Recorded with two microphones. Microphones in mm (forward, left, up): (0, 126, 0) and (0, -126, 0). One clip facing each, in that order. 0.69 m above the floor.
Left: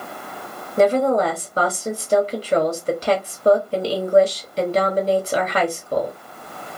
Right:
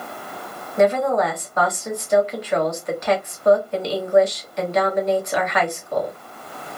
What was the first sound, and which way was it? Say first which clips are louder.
A woman speaking: left 2 dB; 35° left (ahead or behind).